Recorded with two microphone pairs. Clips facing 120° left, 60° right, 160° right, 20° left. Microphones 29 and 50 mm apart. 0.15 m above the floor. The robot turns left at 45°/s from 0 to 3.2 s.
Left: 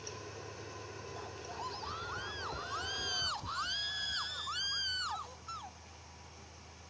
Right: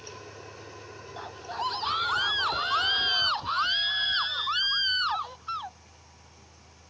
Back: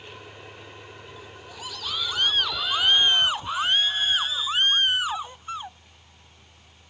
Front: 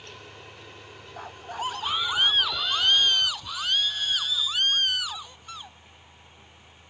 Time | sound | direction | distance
1.2 | a scream | 10° right | ?